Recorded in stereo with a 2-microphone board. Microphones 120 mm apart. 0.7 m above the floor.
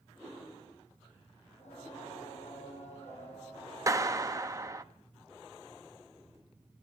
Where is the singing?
65° left (ahead or behind), 8 m.